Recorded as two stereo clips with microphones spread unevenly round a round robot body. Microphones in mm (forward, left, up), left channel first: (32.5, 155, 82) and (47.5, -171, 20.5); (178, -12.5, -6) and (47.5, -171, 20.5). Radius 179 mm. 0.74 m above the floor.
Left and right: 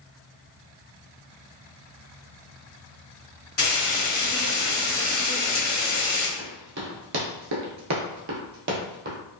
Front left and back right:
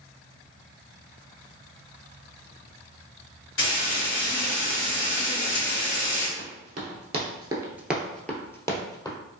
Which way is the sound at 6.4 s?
160° right.